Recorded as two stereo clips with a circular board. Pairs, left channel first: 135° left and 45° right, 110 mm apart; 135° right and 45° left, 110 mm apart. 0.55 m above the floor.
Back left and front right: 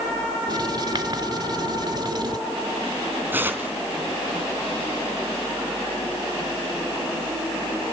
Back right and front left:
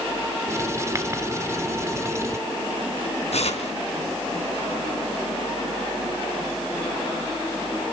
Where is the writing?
10° right, 1.9 m.